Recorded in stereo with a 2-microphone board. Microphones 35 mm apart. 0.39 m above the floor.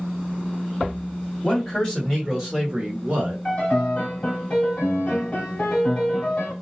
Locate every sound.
1.4 s a man speaking: 25° left (ahead or behind), 1.6 m; by 3.4 s 30° right (ahead or behind), 1.6 m
3.5 s a piano: 35° left (ahead or behind), 1.2 m